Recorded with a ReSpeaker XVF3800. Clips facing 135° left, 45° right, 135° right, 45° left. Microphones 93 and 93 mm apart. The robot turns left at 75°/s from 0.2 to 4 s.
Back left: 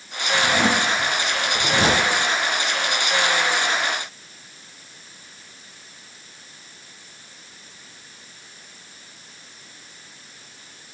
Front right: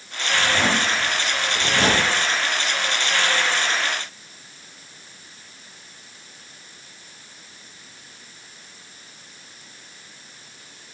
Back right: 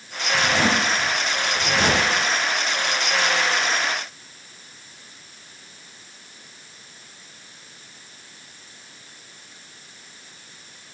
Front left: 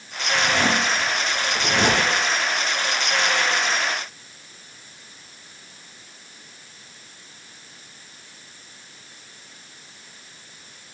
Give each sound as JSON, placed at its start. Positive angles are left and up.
{"t": 0.3, "sound": "a zipper", "azimuth_deg": -165, "distance_m": 4.0}